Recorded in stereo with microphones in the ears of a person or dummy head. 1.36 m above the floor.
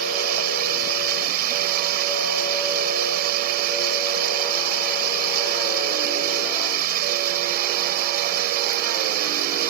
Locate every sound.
0.0 s running water: 55° right (ahead or behind)